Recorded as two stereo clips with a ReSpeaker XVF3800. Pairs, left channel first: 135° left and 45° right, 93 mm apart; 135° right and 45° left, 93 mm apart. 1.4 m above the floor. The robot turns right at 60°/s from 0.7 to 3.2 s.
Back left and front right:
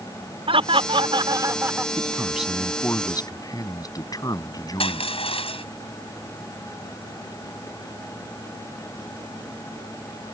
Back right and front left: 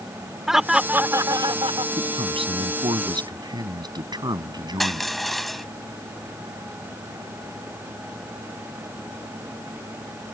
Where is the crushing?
135° left.